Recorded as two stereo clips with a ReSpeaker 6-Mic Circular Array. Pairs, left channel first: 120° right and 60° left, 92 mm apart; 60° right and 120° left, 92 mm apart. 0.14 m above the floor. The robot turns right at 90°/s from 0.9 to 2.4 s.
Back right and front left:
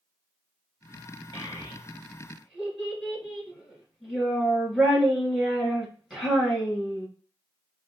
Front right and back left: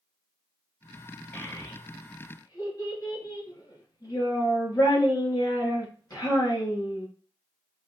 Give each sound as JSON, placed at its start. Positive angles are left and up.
{"t": 1.3, "sound": "a child speaking", "azimuth_deg": -120, "distance_m": 1.9}